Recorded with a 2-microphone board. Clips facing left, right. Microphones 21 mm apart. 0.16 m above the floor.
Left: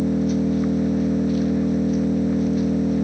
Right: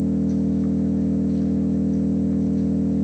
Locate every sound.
0.0 s an engine running: 55° left (ahead or behind), 0.8 m